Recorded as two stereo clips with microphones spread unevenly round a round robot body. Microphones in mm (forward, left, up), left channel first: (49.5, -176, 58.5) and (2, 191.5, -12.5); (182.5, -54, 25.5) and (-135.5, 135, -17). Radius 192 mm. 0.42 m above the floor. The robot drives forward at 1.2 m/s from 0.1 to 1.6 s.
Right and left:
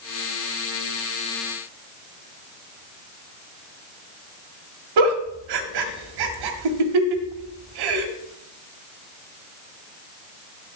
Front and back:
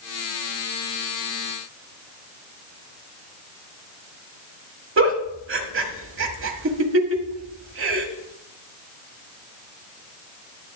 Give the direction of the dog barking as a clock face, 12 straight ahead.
I don't hear a dog barking.